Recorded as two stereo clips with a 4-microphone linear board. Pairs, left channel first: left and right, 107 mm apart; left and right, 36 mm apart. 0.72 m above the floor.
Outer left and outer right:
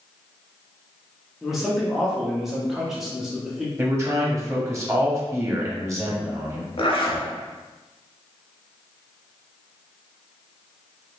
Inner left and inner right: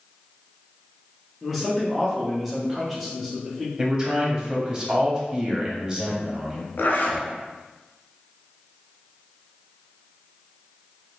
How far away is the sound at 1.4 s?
About 1.0 m.